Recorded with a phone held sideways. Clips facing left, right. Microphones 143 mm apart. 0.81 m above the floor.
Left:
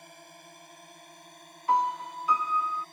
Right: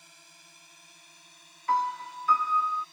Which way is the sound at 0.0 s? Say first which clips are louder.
Left 10 dB; 55° left (ahead or behind).